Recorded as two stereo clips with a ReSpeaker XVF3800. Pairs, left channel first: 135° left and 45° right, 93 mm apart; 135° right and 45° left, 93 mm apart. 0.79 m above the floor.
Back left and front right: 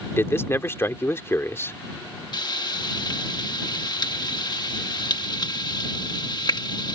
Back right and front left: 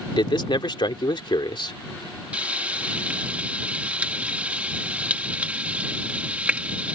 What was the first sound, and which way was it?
A man speaking, 165° right.